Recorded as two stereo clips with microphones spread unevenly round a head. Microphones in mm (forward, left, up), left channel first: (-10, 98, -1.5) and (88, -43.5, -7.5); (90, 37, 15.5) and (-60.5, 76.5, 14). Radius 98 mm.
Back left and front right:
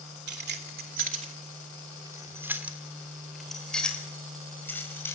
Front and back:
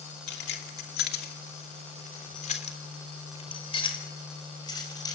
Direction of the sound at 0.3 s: 45° right.